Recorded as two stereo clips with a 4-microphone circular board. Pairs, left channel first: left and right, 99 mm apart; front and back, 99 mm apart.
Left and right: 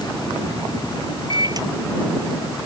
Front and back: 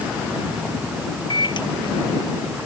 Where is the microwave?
40° right.